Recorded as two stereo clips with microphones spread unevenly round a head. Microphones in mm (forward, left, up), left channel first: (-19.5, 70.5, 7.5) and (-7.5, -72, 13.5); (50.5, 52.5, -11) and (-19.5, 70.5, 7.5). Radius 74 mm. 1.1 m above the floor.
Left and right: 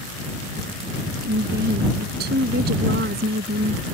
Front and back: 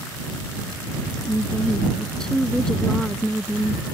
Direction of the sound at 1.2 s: 100° right.